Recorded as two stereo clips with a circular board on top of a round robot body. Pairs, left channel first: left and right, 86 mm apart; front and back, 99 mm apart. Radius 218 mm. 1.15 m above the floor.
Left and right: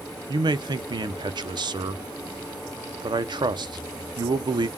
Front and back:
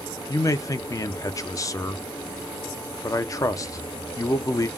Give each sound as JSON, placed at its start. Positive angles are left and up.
{"t": 0.3, "sound": "a man speaking", "azimuth_deg": -55, "distance_m": 0.5}